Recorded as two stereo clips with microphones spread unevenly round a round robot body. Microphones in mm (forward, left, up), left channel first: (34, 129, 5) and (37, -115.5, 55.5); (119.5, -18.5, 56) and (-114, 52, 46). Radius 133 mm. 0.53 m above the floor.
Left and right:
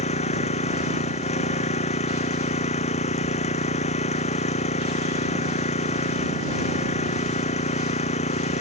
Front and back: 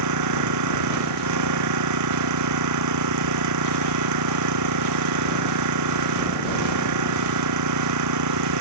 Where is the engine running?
160° left.